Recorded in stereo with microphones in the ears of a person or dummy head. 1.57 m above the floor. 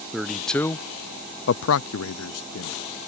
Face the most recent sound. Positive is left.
turn(degrees=65)  # may be behind; listen again after turning